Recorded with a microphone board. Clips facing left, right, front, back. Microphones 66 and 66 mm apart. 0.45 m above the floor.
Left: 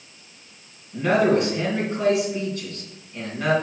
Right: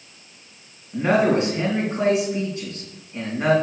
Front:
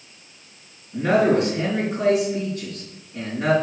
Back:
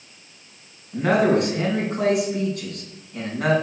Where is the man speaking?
160° right, 3.5 m.